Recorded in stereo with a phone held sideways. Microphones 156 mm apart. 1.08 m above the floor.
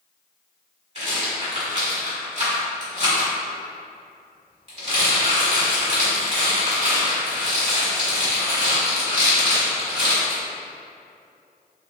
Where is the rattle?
45° right (ahead or behind), 1.3 m.